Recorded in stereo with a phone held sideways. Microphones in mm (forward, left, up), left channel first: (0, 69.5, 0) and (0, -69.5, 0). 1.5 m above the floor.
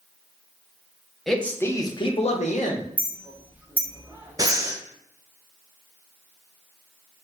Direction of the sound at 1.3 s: Centre (ahead or behind).